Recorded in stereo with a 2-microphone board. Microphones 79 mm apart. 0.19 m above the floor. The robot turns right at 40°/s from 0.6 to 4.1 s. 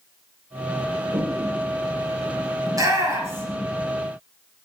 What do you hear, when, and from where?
1.1 s a toilet flushing: 65° right (ahead or behind), 1.6 m; by 2.6 s 10° right (ahead or behind), 1.6 m
2.7 s a shout: 45° right (ahead or behind), 2.5 m; by 3.7 s 20° right (ahead or behind), 2.5 m